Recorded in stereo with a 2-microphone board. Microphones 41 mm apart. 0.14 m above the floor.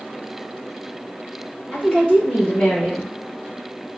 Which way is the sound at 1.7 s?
25° left (ahead or behind).